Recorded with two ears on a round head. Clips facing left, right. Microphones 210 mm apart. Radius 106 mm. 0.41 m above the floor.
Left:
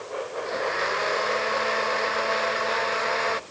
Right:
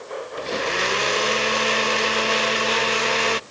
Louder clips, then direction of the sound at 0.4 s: Right 3 dB; 45° right (ahead or behind).